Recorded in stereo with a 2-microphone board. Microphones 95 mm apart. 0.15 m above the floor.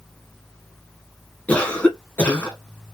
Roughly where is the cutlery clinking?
I don't hear cutlery clinking.